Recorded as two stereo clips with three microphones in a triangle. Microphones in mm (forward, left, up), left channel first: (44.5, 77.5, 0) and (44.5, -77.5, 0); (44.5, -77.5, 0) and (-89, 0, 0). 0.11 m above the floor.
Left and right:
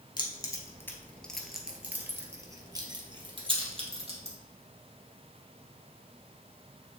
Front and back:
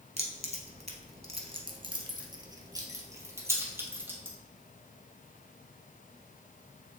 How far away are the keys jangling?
About 1.3 m.